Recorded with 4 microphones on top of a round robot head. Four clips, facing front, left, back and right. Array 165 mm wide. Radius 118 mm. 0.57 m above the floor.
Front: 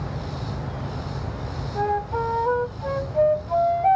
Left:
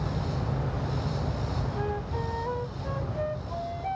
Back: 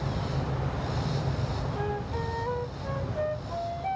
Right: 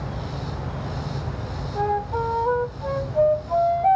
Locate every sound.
1.8 s a flute: 50° right